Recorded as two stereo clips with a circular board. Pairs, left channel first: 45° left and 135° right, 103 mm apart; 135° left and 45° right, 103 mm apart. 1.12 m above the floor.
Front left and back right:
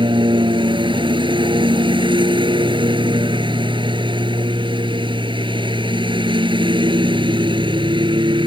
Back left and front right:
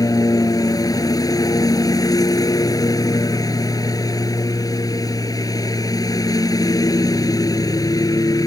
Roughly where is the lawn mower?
Behind.